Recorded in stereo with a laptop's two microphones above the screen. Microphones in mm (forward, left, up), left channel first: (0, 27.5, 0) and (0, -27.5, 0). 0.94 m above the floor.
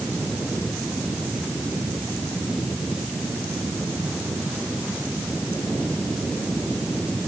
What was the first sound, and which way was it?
Only background noise.